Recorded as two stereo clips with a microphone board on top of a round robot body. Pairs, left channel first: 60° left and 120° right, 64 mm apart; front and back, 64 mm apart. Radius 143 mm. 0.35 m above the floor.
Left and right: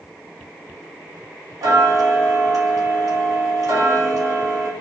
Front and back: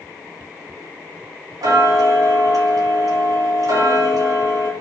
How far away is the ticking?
About 0.8 m.